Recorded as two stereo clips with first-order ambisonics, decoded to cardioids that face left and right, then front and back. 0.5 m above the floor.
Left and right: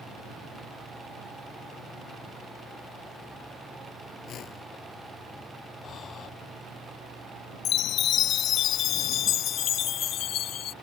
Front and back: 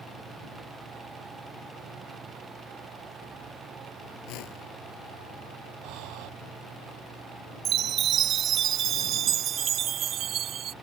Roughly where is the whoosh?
Ahead left.